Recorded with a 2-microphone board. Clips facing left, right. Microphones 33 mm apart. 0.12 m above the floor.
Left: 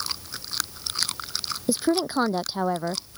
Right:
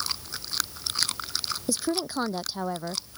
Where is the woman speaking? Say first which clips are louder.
Left 6 dB; 25° left (ahead or behind).